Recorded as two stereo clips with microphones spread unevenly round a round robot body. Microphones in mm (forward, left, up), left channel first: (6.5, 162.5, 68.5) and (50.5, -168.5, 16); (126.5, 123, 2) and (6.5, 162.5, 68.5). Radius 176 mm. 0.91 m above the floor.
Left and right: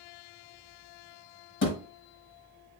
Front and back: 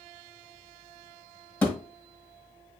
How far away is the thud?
About 1.5 m.